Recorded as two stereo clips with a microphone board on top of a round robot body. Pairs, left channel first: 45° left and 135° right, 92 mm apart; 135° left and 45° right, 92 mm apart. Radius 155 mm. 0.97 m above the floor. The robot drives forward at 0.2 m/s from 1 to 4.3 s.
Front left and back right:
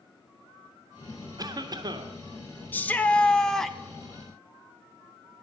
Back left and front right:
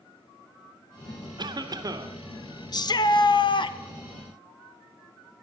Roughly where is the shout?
Left.